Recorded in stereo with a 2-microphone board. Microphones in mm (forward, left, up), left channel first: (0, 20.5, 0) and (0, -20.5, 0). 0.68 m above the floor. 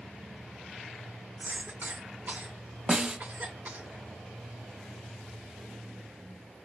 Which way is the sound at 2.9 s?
25° right (ahead or behind).